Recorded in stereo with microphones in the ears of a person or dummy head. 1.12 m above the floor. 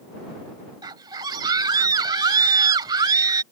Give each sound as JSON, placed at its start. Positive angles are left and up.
{"t": 0.8, "sound": "a scream", "side_deg": -10}